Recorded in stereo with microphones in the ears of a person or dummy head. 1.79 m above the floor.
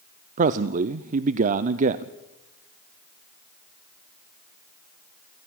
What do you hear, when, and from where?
0.4 s a man speaking: 40° right (ahead or behind), 0.5 m